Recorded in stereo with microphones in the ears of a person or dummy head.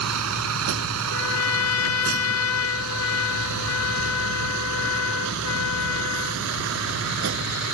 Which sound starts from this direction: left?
A trumpet, at 1.1 s.